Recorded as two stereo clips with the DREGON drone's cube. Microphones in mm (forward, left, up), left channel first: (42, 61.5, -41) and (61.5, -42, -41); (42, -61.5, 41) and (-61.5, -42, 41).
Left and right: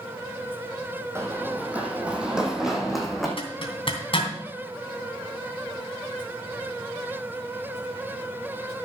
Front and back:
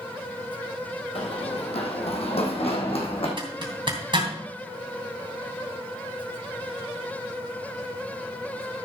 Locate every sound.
1.1 s running footsteps: 15° right, 1.9 m; by 3.3 s 10° left, 3 m
3.4 s a zipper: 130° left, 2.5 m